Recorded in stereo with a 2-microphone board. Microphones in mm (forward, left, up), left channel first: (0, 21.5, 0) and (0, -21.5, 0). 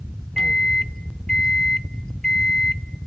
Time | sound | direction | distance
0.4 | a microwave | 15° left (ahead or behind) | 0.7 m